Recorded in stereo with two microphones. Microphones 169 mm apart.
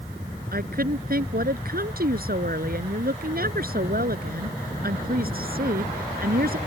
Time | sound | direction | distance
0.5 | a woman speaking | 60° right (ahead or behind) | ?